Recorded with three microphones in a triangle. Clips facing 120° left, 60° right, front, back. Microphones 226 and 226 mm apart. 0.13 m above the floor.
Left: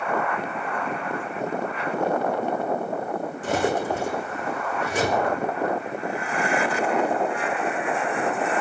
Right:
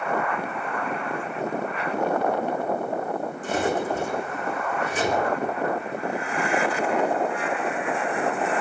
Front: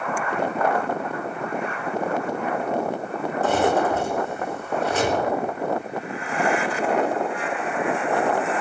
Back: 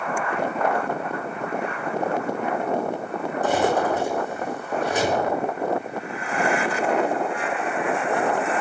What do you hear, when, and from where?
3.4 s cutlery clinking: 105° left, 4 m